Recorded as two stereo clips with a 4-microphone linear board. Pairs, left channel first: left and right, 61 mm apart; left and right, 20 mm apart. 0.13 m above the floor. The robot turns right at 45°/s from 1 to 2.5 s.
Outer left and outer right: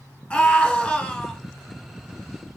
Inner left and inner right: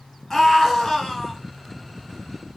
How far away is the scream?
About 1.4 m.